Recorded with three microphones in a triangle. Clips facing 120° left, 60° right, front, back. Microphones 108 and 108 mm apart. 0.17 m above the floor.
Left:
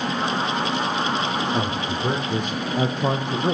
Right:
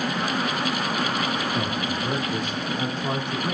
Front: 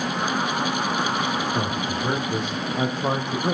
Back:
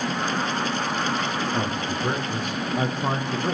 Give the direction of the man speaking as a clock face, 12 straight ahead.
9 o'clock.